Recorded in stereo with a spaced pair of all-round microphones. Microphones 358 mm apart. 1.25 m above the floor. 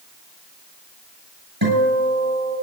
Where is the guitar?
85° right, 8.5 m.